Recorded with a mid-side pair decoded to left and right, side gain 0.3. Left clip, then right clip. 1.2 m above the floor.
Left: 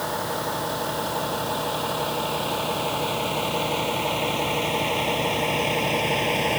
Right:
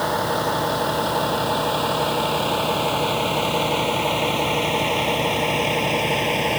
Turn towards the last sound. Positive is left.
turn(degrees=-15)